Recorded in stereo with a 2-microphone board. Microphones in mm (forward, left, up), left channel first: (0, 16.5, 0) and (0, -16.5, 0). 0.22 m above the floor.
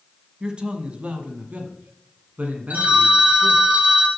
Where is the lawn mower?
I don't hear a lawn mower.